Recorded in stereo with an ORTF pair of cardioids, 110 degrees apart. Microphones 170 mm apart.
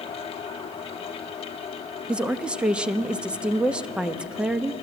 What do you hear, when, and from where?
0.0 s a fan: 35° left, 1.0 m
2.1 s a woman speaking: 5° right, 0.8 m